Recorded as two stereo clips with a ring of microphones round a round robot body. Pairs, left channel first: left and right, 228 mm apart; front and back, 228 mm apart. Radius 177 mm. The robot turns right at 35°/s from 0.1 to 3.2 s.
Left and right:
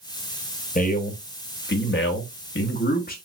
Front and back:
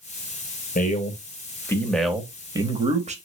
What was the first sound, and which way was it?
A man speaking, 45° left.